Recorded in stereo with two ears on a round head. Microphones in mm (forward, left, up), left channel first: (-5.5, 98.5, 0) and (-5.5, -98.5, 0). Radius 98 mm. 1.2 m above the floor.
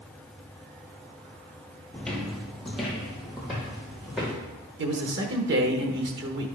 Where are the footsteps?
5° left (ahead or behind), 1.7 m; by 4.3 s 5° right (ahead or behind), 3.5 m.